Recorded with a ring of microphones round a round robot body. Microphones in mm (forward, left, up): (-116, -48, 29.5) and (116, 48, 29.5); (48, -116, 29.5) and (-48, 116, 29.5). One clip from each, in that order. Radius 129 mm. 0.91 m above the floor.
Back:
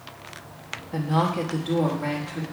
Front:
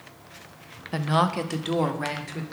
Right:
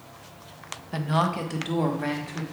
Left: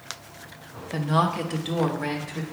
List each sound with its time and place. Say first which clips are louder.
0.9 s a woman speaking: front 1 dB, left 2 dB; 10° left, 0.7 m; by 2.4 s 25° left, 1.4 m